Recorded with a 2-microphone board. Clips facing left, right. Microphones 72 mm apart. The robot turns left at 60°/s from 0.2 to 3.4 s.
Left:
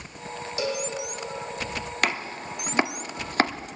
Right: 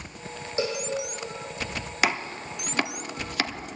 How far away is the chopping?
About 1.0 m.